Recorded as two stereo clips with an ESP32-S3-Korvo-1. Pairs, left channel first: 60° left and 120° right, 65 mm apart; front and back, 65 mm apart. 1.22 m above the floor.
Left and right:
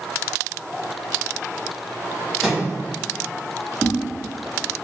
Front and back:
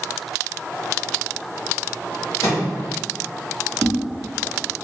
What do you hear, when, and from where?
2.4 s a microwave: 30° right, 1.3 m
3.8 s a whoosh: 145° left, 0.5 m